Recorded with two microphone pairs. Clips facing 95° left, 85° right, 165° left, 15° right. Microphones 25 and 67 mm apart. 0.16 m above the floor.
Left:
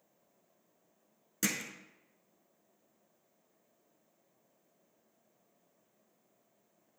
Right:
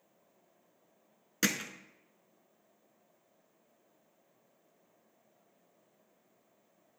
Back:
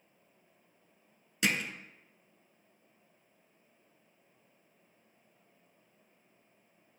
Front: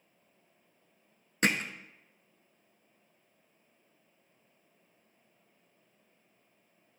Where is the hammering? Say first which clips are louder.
Right 3 dB, front 2 dB; 45° right, 0.7 m.